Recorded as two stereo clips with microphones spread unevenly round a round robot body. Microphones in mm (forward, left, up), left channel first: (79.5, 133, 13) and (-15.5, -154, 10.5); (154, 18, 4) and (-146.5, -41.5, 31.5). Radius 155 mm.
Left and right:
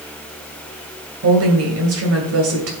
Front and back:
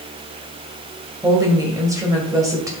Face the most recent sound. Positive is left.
turn(degrees=-85)